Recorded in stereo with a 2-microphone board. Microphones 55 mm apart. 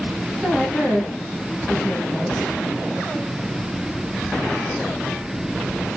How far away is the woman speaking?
About 3.5 m.